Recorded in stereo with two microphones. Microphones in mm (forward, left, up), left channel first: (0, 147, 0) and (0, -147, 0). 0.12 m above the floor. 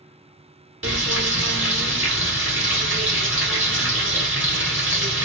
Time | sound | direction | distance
0.8 | frying | 45° right (ahead or behind) | 1.4 m